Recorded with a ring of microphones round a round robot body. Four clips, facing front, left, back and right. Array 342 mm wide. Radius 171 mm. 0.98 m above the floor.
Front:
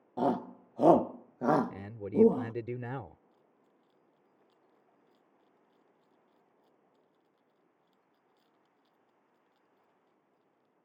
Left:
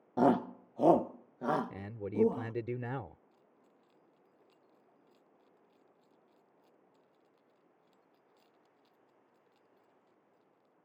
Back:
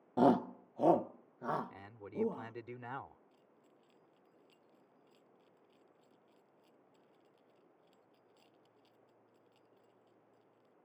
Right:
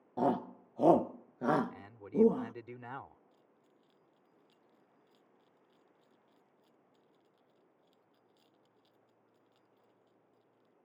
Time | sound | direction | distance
0.2 | a shout | 125° left | ?
1.7 | a man speaking | 45° left | ?
3.3 | keys jangling | 145° right | ?